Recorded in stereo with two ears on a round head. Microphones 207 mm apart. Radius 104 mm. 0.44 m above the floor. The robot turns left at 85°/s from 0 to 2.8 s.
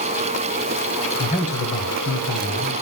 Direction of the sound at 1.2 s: 155° left.